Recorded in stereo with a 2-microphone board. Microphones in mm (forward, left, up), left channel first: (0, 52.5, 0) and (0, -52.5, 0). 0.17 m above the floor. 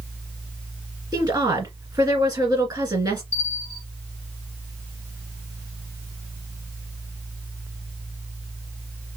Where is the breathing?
I don't hear breathing.